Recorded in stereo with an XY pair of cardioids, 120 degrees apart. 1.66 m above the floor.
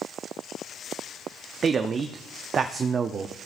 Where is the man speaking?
40° right, 0.5 m.